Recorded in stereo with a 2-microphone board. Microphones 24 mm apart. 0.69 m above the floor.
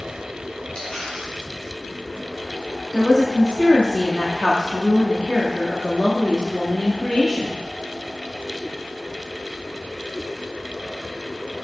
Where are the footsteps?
No footsteps in this recording.